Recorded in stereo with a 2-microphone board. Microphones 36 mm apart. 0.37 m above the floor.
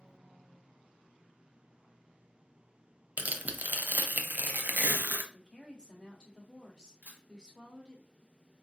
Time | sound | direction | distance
3.2 | tearing paper | 55° right (ahead or behind) | 0.6 m
5.3 | a woman speaking | 20° left (ahead or behind) | 1.0 m
7.0 | a camera shutter | 40° right (ahead or behind) | 1.6 m